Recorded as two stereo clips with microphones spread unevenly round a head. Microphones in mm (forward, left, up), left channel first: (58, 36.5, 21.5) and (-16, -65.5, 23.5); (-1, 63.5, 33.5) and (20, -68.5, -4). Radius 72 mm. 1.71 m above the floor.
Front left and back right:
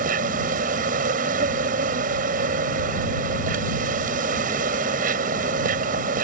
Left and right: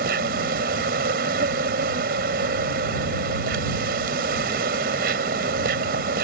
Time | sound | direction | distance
0.0 | an insect | 110° right | ?